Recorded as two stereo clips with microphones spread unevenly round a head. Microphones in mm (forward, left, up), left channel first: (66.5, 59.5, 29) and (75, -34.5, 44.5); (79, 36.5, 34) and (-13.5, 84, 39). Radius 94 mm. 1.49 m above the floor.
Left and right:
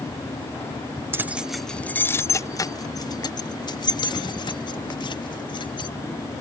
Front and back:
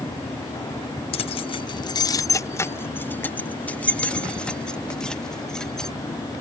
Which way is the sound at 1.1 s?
40° right.